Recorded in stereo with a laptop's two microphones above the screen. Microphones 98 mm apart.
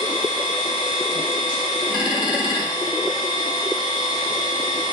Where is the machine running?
55° left (ahead or behind), 1.0 m.